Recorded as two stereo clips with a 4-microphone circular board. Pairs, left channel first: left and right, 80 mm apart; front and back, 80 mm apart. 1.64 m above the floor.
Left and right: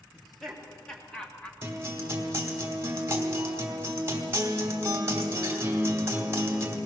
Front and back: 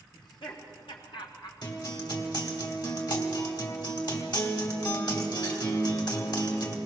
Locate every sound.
0.1 s laughter: 5° left, 4 m; by 1.5 s 15° left, 2 m
1.6 s a guitar: 30° right, 3 m